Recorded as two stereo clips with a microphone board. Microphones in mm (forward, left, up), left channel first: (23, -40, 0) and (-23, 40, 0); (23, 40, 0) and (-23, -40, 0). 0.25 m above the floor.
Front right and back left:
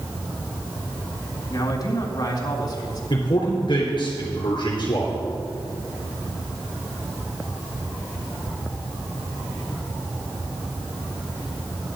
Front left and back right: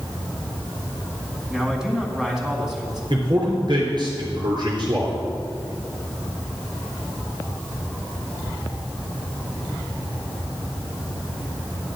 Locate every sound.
1.5 s a man speaking: 35° right, 2.0 m
3.1 s a man speaking: 90° right, 3.5 m